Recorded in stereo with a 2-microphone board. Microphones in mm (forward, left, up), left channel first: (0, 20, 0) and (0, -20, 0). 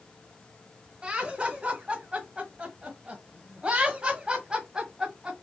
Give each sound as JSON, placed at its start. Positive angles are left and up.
{"t": 1.0, "sound": "laughter", "side_deg": -25, "distance_m": 1.9}